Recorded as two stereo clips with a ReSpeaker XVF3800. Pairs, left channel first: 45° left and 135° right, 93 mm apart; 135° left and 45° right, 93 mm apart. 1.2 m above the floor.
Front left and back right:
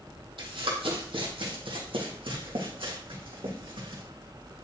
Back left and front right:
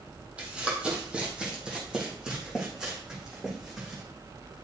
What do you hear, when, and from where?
0.4 s running footsteps: 120° right, 2.5 m; by 4.0 s 130° right, 4.5 m